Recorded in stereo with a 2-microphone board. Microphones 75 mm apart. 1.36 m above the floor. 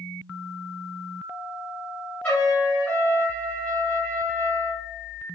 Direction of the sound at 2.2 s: 20° left (ahead or behind).